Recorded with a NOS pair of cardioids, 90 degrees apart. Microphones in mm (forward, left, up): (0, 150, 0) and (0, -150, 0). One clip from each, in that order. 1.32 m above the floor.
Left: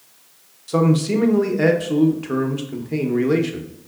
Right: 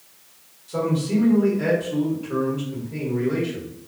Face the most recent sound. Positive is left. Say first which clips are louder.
# left 5 dB
turn(degrees=60)